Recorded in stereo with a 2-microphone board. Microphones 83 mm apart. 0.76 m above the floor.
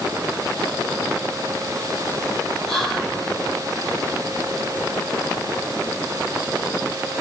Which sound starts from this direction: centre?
Whispering, at 2.7 s.